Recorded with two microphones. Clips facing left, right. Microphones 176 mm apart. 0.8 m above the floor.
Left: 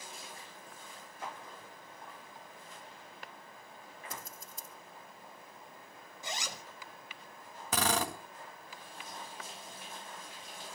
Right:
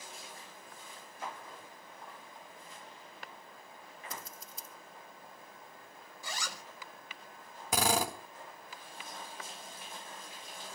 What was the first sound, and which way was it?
Scissors, 50° left (ahead or behind).